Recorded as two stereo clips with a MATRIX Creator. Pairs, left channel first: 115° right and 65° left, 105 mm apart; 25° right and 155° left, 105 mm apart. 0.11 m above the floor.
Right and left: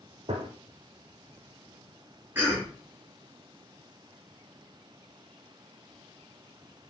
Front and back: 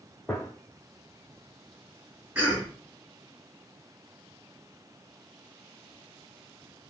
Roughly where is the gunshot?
Ahead left.